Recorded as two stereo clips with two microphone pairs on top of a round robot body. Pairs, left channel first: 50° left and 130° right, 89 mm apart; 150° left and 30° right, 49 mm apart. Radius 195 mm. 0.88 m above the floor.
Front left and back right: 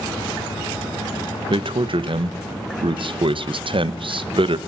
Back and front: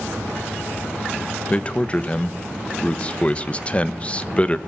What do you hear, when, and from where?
1.5 s a man speaking: 140° right, 1.3 m